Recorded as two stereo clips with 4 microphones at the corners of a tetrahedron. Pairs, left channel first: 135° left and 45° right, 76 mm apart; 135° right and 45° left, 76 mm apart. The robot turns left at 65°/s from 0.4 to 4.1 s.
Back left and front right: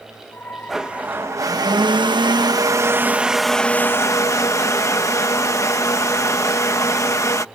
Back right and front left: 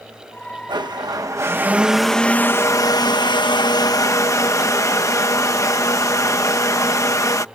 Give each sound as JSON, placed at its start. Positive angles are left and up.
{"t": 0.7, "sound": "a blender", "azimuth_deg": 45}